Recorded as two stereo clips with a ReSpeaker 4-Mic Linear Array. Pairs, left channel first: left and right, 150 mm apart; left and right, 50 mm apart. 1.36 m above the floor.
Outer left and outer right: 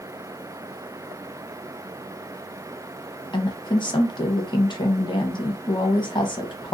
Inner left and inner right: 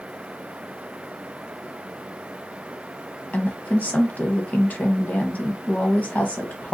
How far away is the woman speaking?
About 0.6 m.